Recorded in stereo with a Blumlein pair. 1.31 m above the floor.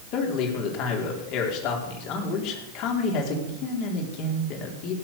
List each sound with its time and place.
0.1 s a man speaking: 40° left, 4 m